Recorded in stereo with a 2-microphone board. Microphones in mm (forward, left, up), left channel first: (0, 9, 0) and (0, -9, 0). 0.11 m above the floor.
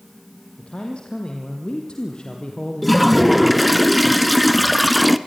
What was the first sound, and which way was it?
A man speaking, 65° left (ahead or behind).